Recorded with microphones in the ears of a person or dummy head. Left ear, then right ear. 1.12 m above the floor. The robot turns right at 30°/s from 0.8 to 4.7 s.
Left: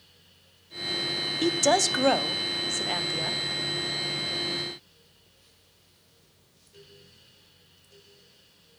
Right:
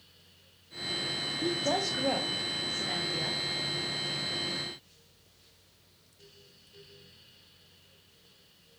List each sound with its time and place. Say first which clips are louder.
1.4 s a woman speaking: left 8 dB; 105° left, 0.6 m; by 3.4 s 165° left, 0.6 m